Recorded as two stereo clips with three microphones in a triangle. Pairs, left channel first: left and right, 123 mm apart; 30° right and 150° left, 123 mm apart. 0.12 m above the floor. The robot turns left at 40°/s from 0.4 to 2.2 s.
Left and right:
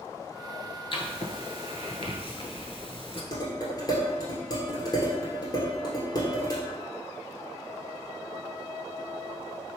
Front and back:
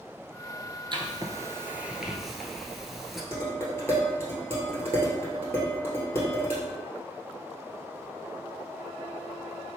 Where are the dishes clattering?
40° left, 1.5 m.